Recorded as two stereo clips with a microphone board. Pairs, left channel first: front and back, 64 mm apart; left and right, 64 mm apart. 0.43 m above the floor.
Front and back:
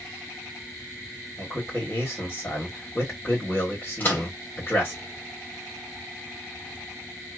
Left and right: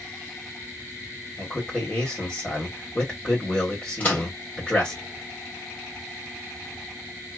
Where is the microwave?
40° left, 1.4 m.